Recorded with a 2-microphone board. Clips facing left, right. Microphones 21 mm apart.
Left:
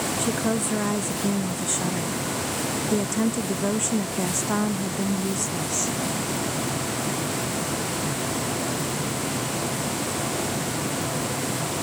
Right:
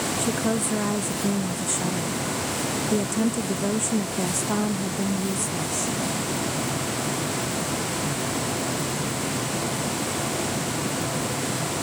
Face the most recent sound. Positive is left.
turn(degrees=45)  # may be behind; listen again after turning